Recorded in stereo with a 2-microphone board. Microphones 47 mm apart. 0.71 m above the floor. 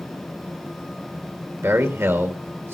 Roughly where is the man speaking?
Right.